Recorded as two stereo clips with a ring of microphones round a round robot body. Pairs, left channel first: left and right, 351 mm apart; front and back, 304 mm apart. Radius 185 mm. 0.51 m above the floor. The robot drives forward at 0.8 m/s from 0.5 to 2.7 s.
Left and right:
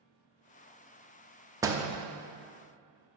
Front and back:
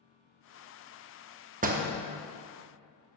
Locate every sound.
1.6 s a door slam: 160° right, 0.7 m; by 1.9 s 170° right, 0.8 m